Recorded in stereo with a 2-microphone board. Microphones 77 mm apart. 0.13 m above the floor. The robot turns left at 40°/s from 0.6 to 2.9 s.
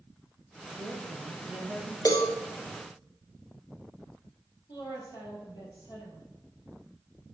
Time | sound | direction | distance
0.7 | a woman speaking | 135° right | 2.5 m
2.0 | a cowbell | 50° left (ahead or behind) | 1.5 m
4.7 | a woman speaking | 65° left (ahead or behind) | 3.5 m